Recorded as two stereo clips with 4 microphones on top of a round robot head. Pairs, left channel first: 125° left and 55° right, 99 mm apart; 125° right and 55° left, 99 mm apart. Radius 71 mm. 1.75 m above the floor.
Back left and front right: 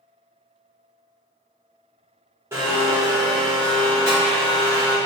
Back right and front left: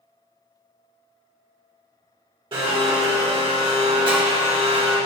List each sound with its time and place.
2.5 s a blender: 10° left, 1.3 m